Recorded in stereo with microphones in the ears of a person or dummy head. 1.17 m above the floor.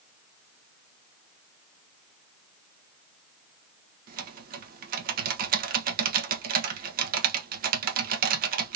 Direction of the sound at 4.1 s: 40° right (ahead or behind).